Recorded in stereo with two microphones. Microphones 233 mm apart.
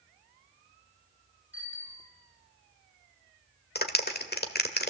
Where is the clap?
45° left (ahead or behind), 1.5 m.